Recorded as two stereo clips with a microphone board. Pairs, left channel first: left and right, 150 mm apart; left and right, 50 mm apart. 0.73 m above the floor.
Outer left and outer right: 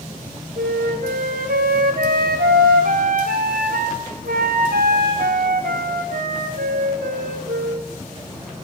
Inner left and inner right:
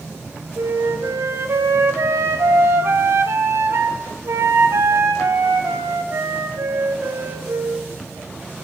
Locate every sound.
0.6 s a flute: 80° right, 1.1 m